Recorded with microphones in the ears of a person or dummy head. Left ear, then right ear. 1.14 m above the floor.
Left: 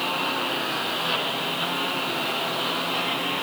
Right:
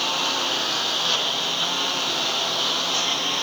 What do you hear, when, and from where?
0.0 s a lawn mower: 80° right